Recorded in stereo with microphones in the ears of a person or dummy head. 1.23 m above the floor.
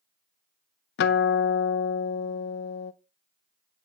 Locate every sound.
1.0 s a guitar: 65° left (ahead or behind), 0.5 m